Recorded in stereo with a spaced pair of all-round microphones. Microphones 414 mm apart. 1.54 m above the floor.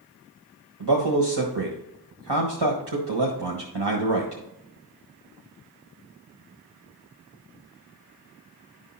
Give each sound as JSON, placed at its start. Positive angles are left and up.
{"t": 0.8, "sound": "a man speaking", "side_deg": -70, "distance_m": 1.3}